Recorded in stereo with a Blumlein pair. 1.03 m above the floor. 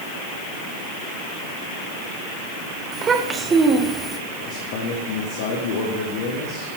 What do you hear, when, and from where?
2.9 s a child speaking: 25° right, 1.9 m; by 4.2 s 5° right, 1.2 m
4.3 s a man speaking: 45° left, 1.9 m